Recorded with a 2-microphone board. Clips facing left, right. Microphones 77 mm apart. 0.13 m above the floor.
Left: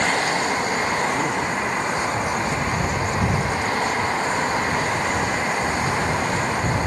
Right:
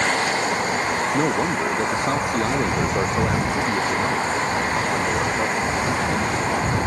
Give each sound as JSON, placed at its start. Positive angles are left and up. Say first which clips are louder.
{"t": 1.1, "sound": "a man speaking", "louder": "right 2 dB", "side_deg": -45}